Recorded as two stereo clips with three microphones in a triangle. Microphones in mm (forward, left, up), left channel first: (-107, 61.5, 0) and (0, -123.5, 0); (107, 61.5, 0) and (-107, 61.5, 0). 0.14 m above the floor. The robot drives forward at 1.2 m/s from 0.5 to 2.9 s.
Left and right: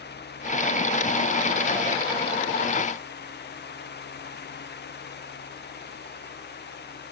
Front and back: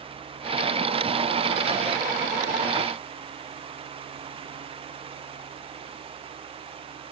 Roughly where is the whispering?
I don't hear whispering.